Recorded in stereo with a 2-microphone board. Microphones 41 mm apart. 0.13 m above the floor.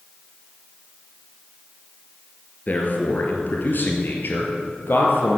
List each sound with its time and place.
2.7 s a man speaking: 40° left (ahead or behind), 3 m; by 5.4 s 60° left (ahead or behind), 3.5 m